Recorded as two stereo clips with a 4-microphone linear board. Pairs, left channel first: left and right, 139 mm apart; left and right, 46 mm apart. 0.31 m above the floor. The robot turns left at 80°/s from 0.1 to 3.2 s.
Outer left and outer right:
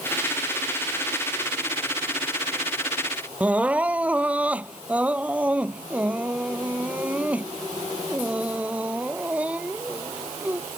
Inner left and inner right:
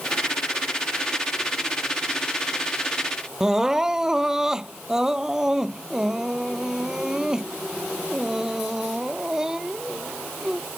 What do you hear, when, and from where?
3.4 s crying: 10° right (ahead or behind)